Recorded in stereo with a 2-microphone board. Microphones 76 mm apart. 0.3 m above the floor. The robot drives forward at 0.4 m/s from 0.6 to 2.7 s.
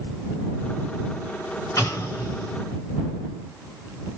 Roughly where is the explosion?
Left.